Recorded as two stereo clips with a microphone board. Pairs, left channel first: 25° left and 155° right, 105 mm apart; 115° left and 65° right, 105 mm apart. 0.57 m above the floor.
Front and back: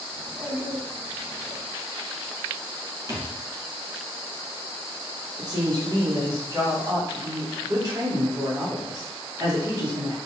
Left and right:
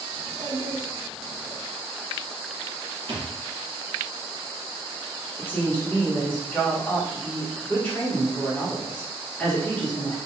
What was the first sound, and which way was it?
A child speaking, 95° right.